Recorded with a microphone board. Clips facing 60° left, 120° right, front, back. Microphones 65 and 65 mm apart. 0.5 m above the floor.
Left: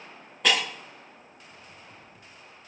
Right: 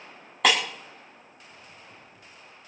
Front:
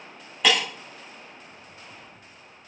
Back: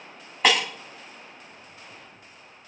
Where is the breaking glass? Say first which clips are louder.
Right 2 dB, back 1 dB; 120° right, 3.5 m.